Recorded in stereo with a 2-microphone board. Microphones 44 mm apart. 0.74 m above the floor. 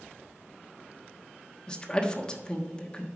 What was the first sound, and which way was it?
A woman speaking, 20° left (ahead or behind).